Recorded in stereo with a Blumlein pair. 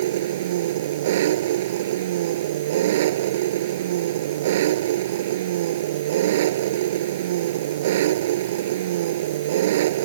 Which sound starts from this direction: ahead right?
An engine running, at 0.0 s.